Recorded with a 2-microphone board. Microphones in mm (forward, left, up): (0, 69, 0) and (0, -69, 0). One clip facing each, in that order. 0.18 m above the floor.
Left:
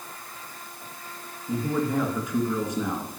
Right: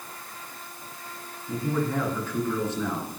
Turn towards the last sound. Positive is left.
turn(degrees=15)  # may be behind; listen again after turning